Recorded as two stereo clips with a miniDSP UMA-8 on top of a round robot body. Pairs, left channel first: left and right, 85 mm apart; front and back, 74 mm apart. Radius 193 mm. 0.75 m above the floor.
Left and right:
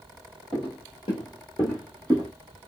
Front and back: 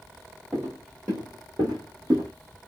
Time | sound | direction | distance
0.5 | footsteps | 100° left | 1.4 m